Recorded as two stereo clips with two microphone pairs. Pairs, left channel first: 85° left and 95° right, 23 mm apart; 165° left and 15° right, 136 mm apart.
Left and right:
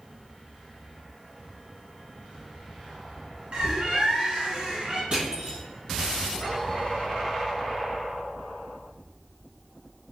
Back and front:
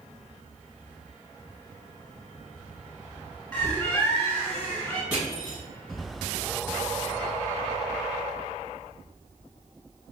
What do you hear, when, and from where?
3.5 s a bird: 120° right, 1.0 m
5.1 s crushing: 90° right, 2.0 m